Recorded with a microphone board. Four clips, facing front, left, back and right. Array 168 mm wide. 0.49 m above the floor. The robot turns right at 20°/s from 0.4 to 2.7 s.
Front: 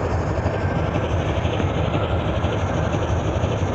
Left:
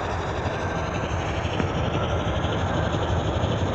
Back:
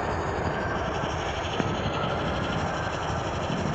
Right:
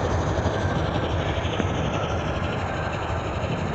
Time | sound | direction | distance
0.0 | an engine running | 30° right | ?